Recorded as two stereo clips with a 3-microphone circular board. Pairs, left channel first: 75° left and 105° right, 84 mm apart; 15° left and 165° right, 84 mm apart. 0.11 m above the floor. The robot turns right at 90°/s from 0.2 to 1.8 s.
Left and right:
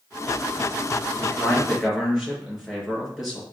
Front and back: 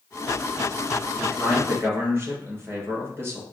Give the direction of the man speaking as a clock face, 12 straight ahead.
8 o'clock.